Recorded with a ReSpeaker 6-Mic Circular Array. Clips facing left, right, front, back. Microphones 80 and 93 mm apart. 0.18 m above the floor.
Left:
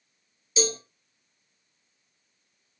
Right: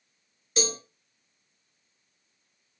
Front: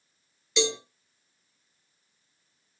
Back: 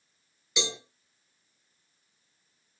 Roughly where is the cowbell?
Right.